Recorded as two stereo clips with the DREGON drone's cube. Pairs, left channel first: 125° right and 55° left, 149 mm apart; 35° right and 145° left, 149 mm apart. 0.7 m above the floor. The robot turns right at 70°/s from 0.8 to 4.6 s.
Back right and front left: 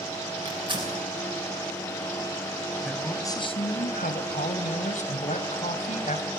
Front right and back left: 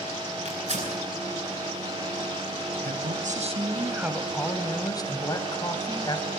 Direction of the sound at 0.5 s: 110° left.